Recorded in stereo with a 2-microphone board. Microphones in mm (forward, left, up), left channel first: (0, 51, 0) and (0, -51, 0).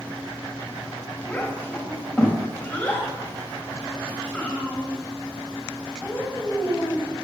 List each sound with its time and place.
1.3 s a child speaking: 15° left (ahead or behind), 4 m